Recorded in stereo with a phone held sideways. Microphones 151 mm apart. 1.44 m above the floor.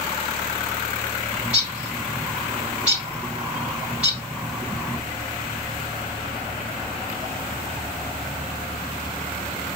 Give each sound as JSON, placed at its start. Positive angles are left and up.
{"t": 1.3, "sound": "a bird", "side_deg": -5, "distance_m": 2.5}